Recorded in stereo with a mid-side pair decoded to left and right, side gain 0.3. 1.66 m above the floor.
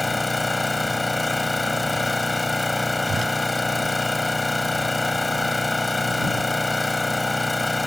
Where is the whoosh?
60° right.